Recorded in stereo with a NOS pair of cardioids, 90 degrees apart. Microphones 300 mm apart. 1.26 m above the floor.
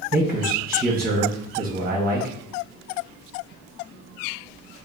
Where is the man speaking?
30° right, 1.1 m.